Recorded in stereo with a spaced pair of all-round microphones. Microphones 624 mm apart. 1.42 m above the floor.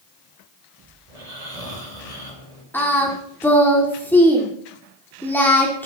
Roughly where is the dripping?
I don't hear dripping.